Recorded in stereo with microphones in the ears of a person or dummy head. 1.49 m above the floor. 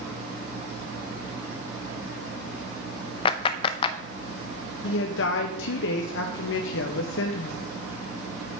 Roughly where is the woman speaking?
Left.